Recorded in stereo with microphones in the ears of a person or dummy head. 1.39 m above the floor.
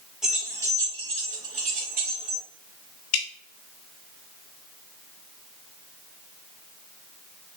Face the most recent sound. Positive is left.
turn(degrees=85)